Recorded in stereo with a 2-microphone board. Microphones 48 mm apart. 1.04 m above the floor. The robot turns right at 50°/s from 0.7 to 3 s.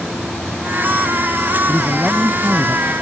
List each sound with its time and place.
1.7 s a man speaking: 175° left; by 2.9 s 125° right